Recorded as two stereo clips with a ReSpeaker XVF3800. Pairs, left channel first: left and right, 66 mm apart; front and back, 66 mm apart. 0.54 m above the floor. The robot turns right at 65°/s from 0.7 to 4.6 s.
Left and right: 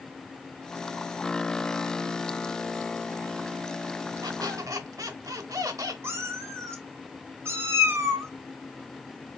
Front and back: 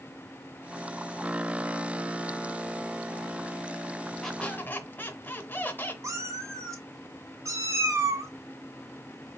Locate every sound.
4.2 s a squeak: 85° right, 0.6 m; by 5.9 s 60° right, 0.6 m
6.0 s a cat meowing: 140° right, 0.7 m